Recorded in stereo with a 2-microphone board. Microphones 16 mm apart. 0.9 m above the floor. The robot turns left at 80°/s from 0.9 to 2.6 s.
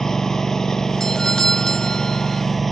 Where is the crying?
I don't hear crying.